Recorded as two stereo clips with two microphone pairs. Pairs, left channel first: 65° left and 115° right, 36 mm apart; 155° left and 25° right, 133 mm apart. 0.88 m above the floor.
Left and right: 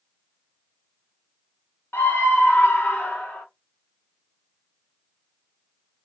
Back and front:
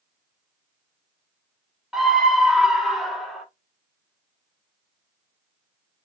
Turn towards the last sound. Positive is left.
turn(degrees=65)